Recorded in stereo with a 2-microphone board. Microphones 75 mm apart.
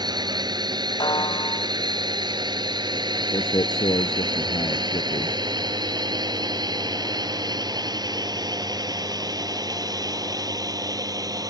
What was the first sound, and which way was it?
A drone, 65° right (ahead or behind).